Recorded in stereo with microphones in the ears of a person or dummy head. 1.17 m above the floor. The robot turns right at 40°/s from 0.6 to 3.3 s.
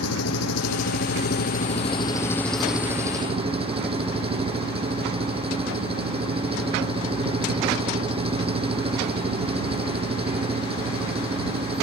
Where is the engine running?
100° left; by 11.8 s 150° right.